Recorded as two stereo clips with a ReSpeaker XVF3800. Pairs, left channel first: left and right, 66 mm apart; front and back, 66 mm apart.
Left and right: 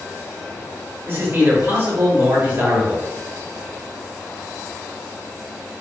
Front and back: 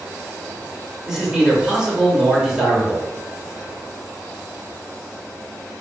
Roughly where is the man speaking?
Right.